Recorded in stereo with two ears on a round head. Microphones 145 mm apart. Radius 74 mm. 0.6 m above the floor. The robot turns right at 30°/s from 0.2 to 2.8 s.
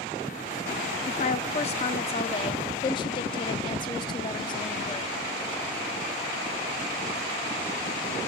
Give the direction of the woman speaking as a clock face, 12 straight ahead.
9 o'clock.